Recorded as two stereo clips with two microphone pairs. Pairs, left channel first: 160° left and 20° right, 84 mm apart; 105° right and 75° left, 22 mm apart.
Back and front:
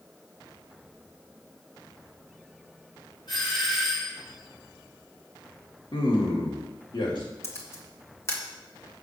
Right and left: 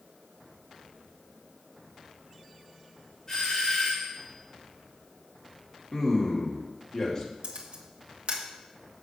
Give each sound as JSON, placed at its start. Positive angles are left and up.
{"t": 3.3, "sound": "a doorbell", "azimuth_deg": -170, "distance_m": 4.5}
{"t": 5.9, "sound": "a man speaking", "azimuth_deg": -175, "distance_m": 2.5}
{"t": 7.4, "sound": "a camera shutter", "azimuth_deg": 105, "distance_m": 1.6}